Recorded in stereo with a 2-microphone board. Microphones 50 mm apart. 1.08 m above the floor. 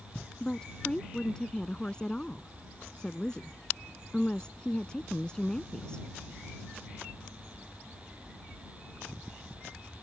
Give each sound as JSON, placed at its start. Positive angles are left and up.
{"t": 0.4, "sound": "a woman speaking", "side_deg": 15}